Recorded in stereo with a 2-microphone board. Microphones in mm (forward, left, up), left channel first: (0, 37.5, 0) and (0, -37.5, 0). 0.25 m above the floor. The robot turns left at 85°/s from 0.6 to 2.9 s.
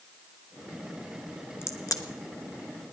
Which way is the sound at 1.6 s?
35° left (ahead or behind).